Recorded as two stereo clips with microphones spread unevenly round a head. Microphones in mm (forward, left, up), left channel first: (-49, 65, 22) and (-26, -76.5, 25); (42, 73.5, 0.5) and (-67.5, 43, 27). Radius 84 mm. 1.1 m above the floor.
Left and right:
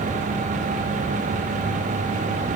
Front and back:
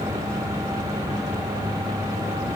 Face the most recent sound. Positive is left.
No sound to turn to.